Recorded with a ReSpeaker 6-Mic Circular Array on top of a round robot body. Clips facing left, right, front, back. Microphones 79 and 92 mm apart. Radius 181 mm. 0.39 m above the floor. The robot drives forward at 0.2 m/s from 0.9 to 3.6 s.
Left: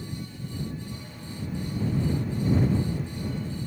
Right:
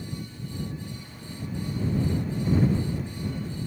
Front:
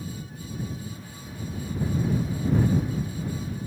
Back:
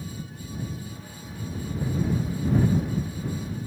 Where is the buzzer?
I don't hear a buzzer.